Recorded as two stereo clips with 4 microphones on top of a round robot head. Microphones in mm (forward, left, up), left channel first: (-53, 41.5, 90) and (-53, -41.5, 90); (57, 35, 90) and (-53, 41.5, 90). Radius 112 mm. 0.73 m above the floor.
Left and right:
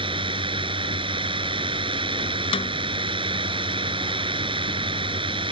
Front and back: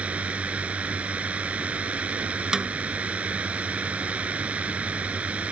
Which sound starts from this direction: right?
A drone, at 0.0 s.